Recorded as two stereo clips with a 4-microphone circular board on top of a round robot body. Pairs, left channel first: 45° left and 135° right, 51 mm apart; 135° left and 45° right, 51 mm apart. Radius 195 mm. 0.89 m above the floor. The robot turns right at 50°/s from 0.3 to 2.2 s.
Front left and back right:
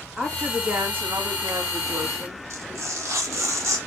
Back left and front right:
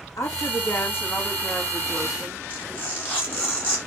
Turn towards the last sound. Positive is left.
turn(degrees=-160)